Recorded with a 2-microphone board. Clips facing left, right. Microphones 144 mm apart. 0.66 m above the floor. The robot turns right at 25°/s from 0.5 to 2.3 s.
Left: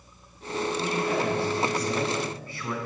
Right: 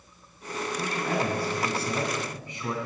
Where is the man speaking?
55° right, 4.5 m; by 2.9 s 15° right, 4.5 m.